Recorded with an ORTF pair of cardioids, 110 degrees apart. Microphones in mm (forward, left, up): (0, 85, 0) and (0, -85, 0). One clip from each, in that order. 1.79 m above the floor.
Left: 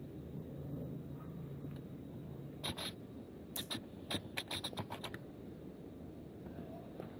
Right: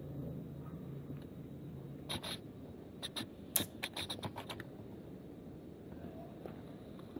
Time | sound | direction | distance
3.5 | scissors | 60° right | 0.8 m